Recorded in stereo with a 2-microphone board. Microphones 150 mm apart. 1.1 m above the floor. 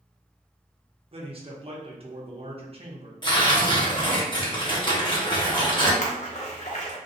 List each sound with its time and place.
1.1 s a man speaking: 40° right (ahead or behind), 0.8 m
3.2 s tearing paper: 30° left (ahead or behind), 1.1 m
6.0 s a splash: 50° left (ahead or behind), 0.8 m